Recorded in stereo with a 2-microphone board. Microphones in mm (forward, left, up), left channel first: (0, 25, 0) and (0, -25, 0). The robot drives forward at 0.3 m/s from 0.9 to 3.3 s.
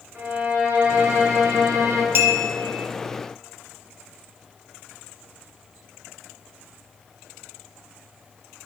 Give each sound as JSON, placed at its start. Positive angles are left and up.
{"t": 0.1, "sound": "a violin", "side_deg": -35, "distance_m": 1.2}
{"t": 2.1, "sound": "a clink", "side_deg": -50, "distance_m": 0.8}